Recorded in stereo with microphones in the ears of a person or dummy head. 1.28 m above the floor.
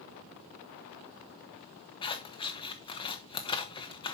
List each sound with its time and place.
2.0 s scissors: 25° left (ahead or behind), 0.8 m